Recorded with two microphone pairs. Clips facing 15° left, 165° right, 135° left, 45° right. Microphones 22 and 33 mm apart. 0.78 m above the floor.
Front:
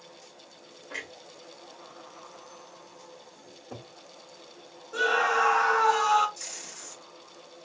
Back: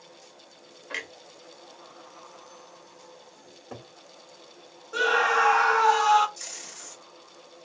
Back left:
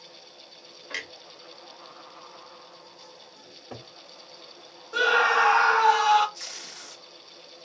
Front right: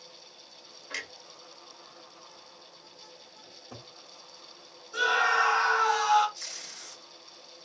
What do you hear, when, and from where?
0.9 s a clunk: 150° right, 0.7 m
3.5 s a cupboard door: 155° left, 1.4 m
4.9 s a scream: 140° left, 0.9 m
6.4 s tape being pulled: 120° left, 1.2 m